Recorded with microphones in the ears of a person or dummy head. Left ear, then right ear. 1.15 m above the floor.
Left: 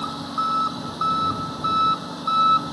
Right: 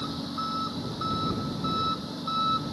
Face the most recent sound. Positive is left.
turn(degrees=45)  # may be behind; listen again after turning